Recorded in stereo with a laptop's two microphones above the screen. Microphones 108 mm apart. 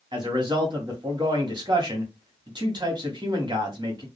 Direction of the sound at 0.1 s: 45° right (ahead or behind).